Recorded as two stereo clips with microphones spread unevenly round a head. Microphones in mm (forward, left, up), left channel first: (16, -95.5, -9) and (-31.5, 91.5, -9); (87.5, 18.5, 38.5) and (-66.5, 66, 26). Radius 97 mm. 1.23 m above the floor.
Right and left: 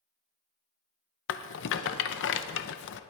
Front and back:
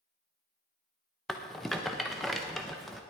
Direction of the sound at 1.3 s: 105° right.